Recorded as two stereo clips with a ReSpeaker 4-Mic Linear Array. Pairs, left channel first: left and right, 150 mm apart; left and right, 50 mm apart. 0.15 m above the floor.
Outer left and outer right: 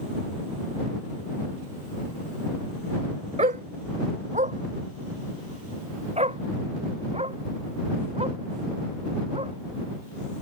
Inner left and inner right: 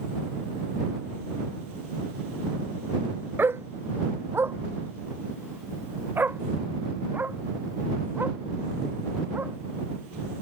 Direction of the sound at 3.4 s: 50° right (ahead or behind).